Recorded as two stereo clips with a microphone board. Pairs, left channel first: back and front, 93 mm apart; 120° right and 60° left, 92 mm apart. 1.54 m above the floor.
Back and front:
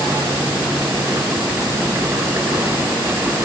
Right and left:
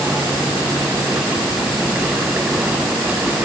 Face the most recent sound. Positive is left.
No sound to turn to.